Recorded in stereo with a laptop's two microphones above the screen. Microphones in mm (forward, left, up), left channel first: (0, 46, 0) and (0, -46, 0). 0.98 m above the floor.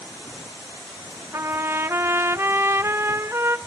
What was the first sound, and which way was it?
A trumpet, 25° right (ahead or behind).